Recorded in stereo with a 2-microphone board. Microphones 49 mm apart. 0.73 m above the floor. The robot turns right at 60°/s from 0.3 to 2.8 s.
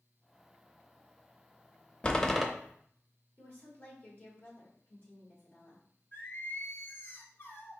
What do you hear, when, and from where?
2.0 s a door slam: 20° left (ahead or behind), 0.6 m; by 2.5 s centre (ahead or behind), 0.6 m
3.4 s a woman speaking: 35° left (ahead or behind), 3 m
6.1 s singing: 50° left (ahead or behind), 0.8 m